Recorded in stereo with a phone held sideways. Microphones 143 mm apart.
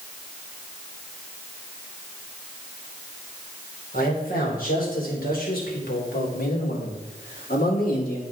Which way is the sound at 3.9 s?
65° left (ahead or behind).